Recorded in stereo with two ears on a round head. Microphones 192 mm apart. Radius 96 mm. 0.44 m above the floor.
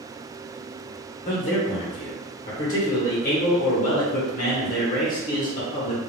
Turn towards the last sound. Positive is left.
turn(degrees=40)  # may be behind; listen again after turning